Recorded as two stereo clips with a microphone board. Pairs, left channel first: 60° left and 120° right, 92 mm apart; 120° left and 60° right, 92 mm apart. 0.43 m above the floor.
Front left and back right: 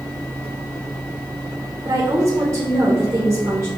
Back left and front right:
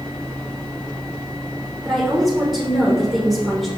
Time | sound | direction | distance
1.9 | a woman speaking | 150° right | 1.1 m